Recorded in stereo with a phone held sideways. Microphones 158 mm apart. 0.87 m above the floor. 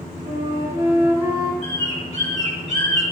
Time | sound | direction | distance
0.2 | a flute | 30° right (ahead or behind) | 3.5 m
1.6 | a bird | 40° left (ahead or behind) | 3.5 m